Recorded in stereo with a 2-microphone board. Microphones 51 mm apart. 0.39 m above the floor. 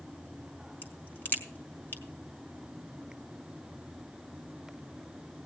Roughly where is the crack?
Left.